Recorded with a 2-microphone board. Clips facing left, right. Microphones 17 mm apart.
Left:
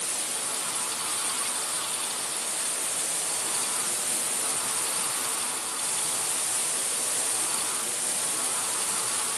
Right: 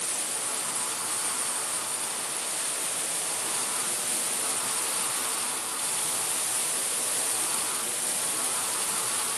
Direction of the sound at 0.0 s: 30° left (ahead or behind).